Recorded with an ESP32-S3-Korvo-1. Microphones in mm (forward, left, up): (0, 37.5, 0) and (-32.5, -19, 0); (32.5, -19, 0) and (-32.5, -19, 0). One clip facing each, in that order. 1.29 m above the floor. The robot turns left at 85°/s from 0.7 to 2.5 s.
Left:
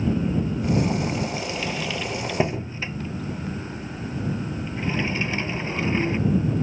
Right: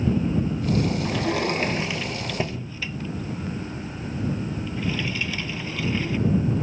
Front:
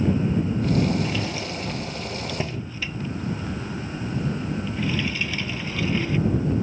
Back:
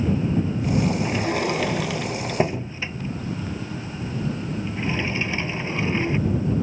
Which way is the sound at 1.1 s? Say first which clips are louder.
Right 3 dB, back 5 dB; 120° right.